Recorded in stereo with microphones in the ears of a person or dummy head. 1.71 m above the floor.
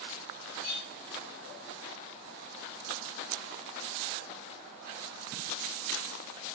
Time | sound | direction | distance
0.6 | a clink | 35° left (ahead or behind) | 1.3 m